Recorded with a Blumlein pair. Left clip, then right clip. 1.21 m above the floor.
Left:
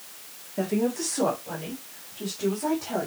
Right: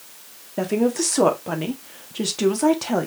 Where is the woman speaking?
20° right, 2 m; by 3.1 s 65° right, 1.9 m.